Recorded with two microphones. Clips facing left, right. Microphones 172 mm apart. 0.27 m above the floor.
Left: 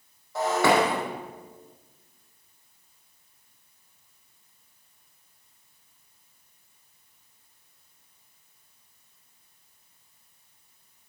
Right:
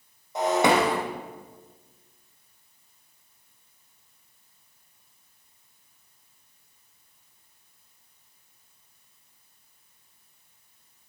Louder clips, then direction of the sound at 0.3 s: Right 1 dB; 20° right (ahead or behind).